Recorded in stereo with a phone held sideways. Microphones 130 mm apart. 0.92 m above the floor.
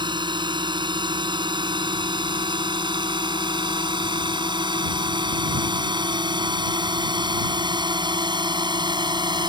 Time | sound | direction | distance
0.0 | a drone | 35° right (ahead or behind) | ?